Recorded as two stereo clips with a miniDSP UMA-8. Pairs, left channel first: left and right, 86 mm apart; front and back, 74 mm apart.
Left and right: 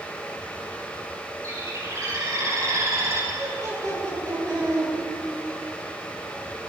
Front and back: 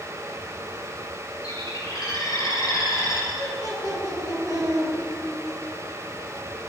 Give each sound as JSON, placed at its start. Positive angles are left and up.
{"t": 1.4, "sound": "a bird", "azimuth_deg": -35, "distance_m": 5.5}
{"t": 3.3, "sound": "laughter", "azimuth_deg": -40, "distance_m": 9.5}